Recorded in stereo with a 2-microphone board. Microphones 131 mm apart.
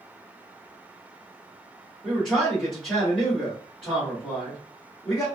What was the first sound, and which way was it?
A man speaking, 5° left (ahead or behind).